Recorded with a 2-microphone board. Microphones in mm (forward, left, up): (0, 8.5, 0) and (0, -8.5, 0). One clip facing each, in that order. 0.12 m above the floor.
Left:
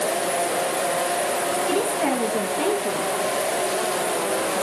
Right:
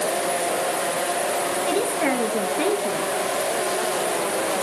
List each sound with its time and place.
1.7 s a woman speaking: 45° right (ahead or behind), 2 m